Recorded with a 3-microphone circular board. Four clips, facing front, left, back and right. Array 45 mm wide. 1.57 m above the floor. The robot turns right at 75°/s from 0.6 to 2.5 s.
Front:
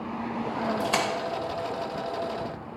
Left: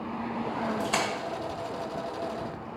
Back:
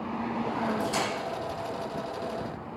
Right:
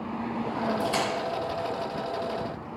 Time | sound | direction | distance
0.8 | a splash | 10° left | 2.5 m